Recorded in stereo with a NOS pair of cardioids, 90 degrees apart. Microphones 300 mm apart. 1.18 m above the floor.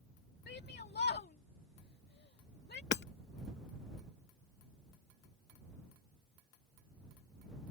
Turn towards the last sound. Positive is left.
turn(degrees=40)